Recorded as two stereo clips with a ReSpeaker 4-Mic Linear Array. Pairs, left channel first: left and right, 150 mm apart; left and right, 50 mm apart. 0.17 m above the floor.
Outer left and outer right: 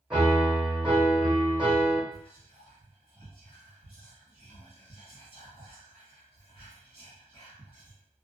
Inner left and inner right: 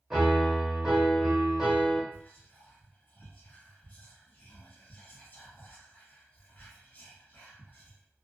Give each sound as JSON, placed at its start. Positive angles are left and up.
{"t": 0.1, "sound": "a piano", "side_deg": -5, "distance_m": 1.0}
{"t": 2.1, "sound": "whispering", "side_deg": 40, "distance_m": 1.5}